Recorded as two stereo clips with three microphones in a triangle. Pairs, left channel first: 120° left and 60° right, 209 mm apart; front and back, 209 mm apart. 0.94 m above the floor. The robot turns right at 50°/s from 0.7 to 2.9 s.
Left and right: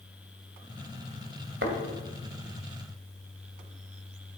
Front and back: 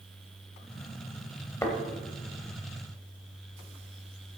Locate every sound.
1.6 s a thud: 75° right, 2.5 m; by 1.8 s 70° right, 2.5 m